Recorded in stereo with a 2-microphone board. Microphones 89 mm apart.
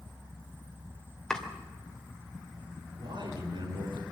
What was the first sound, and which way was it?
Chopping, 10° left (ahead or behind).